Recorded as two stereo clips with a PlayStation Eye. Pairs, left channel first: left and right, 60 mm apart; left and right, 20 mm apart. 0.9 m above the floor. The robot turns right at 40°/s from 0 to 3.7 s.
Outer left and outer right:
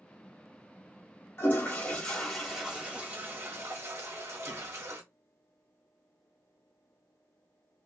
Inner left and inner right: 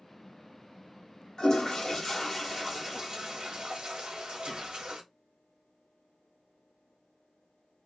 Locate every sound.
1.4 s a toilet flushing: 40° left (ahead or behind), 1.1 m; by 5.0 s 50° right (ahead or behind), 1.1 m